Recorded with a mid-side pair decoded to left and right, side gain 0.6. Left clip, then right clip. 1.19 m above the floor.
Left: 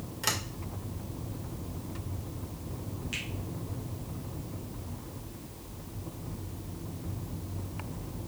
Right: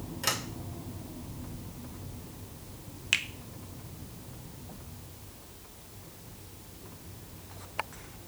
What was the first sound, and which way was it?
A sliding door, 10° left.